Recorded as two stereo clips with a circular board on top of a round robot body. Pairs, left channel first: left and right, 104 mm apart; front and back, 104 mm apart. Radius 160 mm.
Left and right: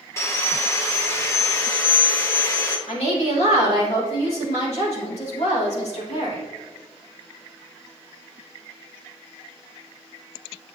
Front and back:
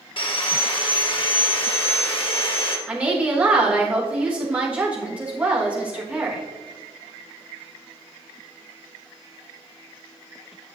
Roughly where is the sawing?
Ahead left.